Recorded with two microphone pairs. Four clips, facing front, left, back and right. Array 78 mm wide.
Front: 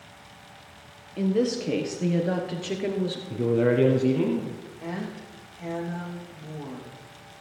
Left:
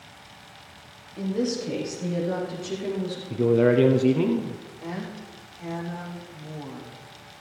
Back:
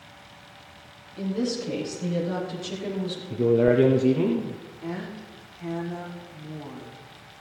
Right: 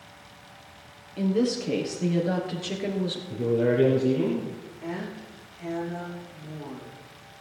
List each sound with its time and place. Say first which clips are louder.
1.2 s a woman speaking: right 2 dB, front 4 dB; 5° right, 3.5 m; by 3.2 s 20° right, 2.5 m
3.3 s a man speaking: left 5 dB, back 3 dB; 85° left, 1.5 m
4.8 s a woman speaking: right 1 dB, even; 30° left, 6.5 m